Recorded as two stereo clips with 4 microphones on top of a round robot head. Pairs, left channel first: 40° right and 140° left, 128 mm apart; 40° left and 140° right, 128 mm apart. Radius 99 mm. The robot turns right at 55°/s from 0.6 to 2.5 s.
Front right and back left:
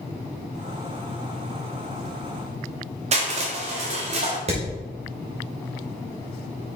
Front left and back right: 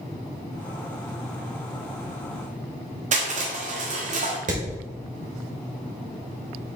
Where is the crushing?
175° right, 1.6 m.